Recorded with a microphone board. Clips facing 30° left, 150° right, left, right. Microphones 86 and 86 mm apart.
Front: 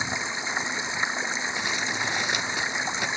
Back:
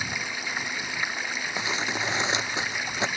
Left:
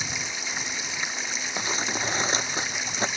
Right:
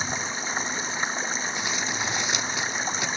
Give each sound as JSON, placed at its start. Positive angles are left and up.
{"t": 0.0, "sound": "running water", "azimuth_deg": -35}
{"t": 1.6, "sound": "crumpling", "azimuth_deg": 145}